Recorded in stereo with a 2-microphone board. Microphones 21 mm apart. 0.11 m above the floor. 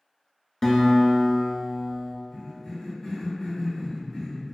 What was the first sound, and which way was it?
A guitar, 15° left (ahead or behind).